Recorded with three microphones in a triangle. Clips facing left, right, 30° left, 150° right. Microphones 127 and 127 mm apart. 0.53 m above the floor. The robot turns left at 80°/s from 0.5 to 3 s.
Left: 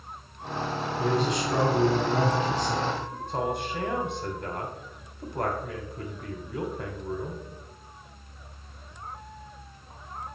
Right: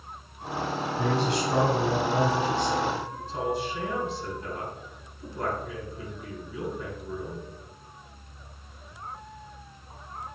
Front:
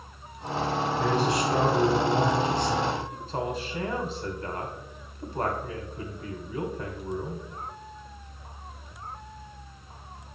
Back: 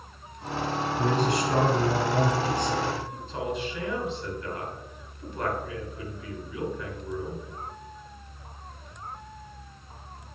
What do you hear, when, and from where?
1.0 s a man speaking: 80° right, 3 m; by 3.0 s 120° left, 3 m
3.1 s a man speaking: 80° left, 2 m